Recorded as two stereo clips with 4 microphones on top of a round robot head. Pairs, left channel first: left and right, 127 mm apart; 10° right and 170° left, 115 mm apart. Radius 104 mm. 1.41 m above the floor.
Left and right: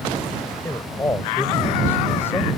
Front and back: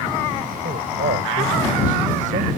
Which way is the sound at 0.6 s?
160° left.